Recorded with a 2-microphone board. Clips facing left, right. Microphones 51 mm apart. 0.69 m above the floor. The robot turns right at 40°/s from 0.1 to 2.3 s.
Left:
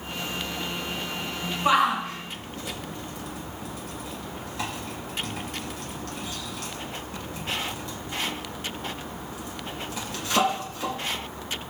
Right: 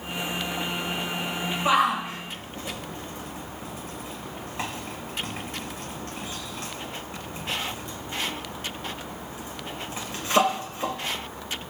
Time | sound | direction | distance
1.6 | a shout | 5° right (ahead or behind) | 3 m